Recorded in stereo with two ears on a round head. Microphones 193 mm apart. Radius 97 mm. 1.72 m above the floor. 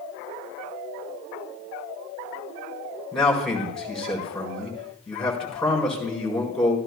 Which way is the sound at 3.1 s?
5° left (ahead or behind).